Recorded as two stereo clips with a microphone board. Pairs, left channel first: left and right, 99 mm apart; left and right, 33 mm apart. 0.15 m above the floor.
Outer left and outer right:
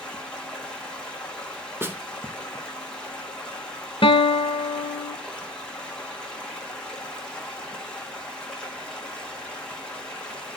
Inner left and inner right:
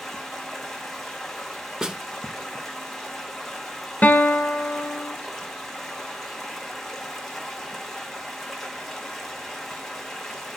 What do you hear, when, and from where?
0.0 s running water: 10° left (ahead or behind), 1.0 m
1.8 s a snare drum: 20° right (ahead or behind), 0.6 m
4.0 s a guitar: 60° left (ahead or behind), 0.7 m